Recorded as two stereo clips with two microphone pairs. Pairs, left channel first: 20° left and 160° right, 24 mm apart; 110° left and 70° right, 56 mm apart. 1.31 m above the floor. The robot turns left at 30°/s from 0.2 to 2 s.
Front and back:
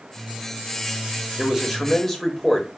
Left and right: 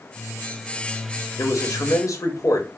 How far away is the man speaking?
About 1.2 m.